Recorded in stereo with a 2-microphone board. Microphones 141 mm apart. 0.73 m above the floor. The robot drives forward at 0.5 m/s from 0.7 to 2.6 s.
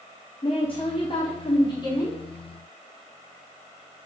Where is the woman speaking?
40° left (ahead or behind), 1.4 m; by 2.2 s 30° left (ahead or behind), 1.9 m.